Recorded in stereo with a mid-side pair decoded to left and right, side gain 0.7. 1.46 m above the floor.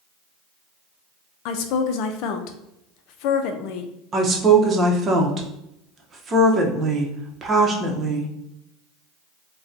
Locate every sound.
1.4 s a woman speaking: 65° left, 0.6 m
4.1 s a woman speaking: 30° right, 0.9 m